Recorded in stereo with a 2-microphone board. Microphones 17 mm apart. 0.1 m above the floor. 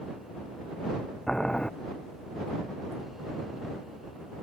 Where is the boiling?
40° left (ahead or behind).